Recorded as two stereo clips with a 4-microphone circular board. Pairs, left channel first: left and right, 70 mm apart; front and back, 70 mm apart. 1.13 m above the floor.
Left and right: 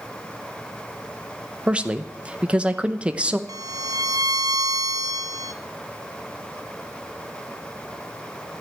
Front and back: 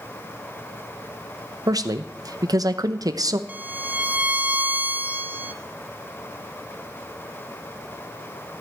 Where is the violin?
115° right, 0.7 m.